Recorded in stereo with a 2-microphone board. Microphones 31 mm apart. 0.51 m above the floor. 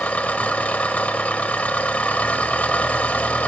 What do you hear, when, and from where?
0.0 s an engine running: 65° left (ahead or behind), 1.2 m